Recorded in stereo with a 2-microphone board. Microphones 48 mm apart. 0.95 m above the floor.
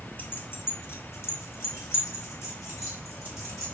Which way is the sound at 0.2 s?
45° left (ahead or behind).